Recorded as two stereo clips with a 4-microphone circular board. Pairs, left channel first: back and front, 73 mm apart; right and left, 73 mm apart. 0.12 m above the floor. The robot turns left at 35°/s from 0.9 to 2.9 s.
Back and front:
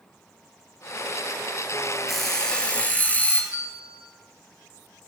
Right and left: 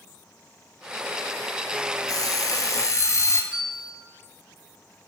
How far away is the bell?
About 4 m.